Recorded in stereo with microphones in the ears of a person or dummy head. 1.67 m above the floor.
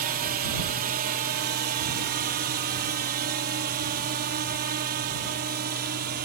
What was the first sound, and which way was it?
A drone, 35° right (ahead or behind).